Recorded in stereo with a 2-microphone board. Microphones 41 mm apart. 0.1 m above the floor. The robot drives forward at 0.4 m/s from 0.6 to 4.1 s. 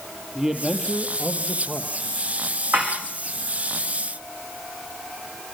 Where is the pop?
I don't hear a pop.